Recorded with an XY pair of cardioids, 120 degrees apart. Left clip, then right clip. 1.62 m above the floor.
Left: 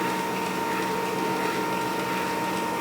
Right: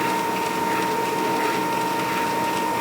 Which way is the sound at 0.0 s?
30° right.